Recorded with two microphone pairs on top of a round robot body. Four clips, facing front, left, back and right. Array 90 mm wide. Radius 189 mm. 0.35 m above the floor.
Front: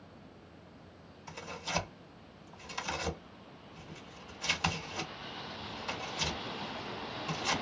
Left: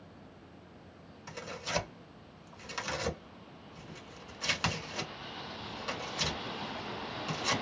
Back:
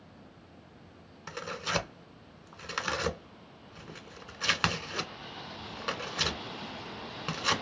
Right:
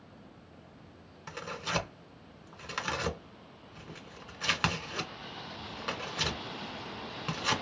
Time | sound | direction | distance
1.3 | tearing paper | 155° right | 1.5 m